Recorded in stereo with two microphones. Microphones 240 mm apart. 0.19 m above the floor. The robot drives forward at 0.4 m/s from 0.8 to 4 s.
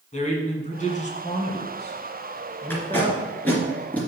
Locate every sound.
0.1 s a man speaking: 30° left (ahead or behind), 2.0 m; by 3.7 s 20° left (ahead or behind), 2.5 m
2.7 s tape being pulled: 10° left (ahead or behind), 2 m; by 4.0 s 5° left (ahead or behind), 2.5 m